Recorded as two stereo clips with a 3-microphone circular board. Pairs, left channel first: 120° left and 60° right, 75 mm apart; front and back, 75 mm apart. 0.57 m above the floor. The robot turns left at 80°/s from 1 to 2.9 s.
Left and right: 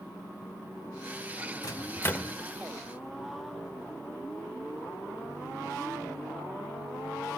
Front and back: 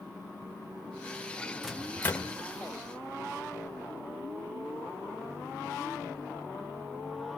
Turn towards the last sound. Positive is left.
turn(degrees=-5)